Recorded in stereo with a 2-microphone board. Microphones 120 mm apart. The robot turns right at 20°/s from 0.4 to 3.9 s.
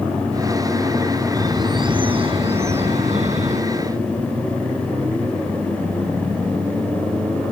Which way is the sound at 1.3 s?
150° right.